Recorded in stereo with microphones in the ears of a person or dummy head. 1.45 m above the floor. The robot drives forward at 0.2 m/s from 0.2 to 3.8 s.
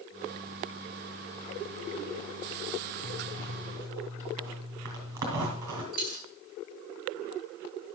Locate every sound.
3.0 s a zipper: 15° right (ahead or behind), 2 m
5.9 s a dropped coin: 50° left (ahead or behind), 6 m